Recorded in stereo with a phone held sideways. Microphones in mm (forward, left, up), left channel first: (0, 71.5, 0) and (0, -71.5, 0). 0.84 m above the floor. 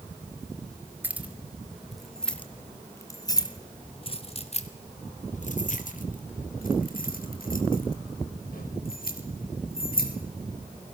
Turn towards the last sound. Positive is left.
turn(degrees=85)